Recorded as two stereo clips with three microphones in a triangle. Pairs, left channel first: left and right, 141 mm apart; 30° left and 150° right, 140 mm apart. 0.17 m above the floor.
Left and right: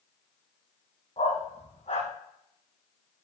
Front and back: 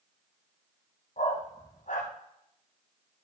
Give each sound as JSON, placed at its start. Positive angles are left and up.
{"t": 1.2, "sound": "a dog barking", "azimuth_deg": 50, "distance_m": 2.5}